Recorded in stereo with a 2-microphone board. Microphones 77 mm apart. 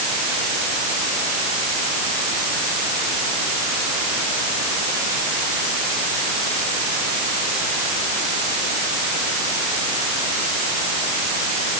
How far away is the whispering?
I don't hear whispering.